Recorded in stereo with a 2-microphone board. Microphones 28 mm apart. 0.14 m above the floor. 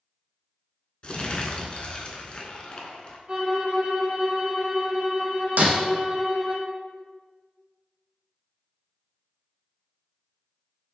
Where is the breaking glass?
65° right (ahead or behind), 0.6 m.